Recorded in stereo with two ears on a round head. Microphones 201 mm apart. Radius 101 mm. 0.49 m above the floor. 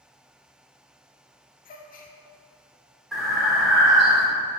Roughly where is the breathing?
Centre.